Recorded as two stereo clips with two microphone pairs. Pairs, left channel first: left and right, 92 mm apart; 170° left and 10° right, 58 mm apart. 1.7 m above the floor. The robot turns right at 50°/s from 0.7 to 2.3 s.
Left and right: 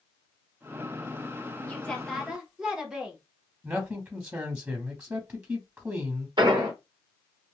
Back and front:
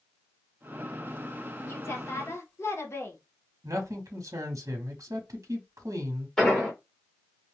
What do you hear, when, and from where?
1.7 s a woman speaking: 155° left, 1.0 m; by 3.2 s 170° right, 1.0 m
3.6 s a man speaking: 30° right, 0.8 m
6.4 s an explosion: 110° right, 1.2 m